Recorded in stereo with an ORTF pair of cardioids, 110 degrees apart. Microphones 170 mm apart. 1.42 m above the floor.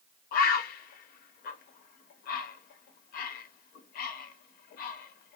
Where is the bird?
60° left, 0.6 m.